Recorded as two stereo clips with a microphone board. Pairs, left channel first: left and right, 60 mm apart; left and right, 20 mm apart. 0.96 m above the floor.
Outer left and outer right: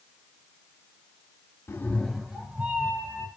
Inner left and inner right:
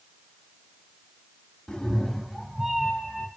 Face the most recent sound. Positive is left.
turn(degrees=-30)  # may be behind; listen again after turning